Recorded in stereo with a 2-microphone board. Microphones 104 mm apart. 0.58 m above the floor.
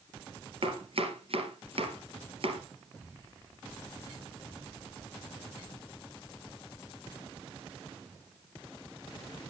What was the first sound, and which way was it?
Chopping, 65° right (ahead or behind).